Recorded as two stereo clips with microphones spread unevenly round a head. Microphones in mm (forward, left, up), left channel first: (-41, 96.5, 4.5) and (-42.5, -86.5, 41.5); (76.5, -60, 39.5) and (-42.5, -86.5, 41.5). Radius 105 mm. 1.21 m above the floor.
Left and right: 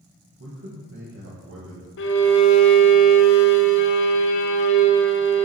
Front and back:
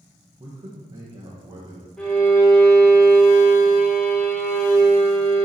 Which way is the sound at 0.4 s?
115° right.